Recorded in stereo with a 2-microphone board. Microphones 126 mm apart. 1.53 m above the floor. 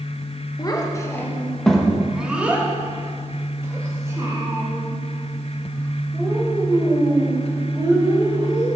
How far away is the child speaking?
About 0.8 m.